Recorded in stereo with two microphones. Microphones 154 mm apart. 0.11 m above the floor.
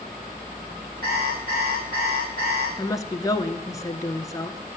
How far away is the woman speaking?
About 1.1 m.